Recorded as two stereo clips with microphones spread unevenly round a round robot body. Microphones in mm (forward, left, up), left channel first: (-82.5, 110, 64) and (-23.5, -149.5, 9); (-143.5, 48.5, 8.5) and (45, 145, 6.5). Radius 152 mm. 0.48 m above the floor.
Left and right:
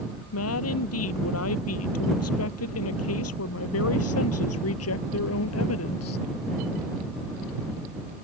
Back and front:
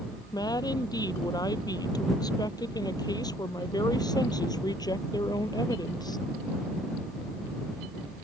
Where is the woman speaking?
135° left.